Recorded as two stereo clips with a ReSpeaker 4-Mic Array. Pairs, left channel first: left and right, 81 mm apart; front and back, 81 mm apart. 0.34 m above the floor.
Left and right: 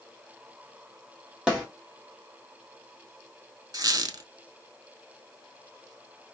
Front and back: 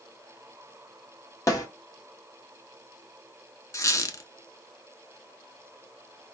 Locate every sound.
1.5 s a snare drum: 15° right, 1.6 m
3.7 s a squeak: 50° right, 0.6 m